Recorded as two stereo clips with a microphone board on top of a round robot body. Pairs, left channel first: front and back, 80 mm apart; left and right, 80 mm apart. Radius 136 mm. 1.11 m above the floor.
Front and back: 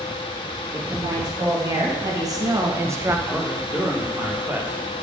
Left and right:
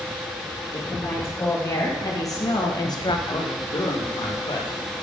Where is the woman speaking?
145° left, 2.5 m; by 3.2 s 115° left, 0.8 m.